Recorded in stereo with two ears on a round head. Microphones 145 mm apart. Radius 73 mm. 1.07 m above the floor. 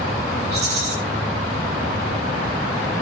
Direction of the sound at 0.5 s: 40° right (ahead or behind).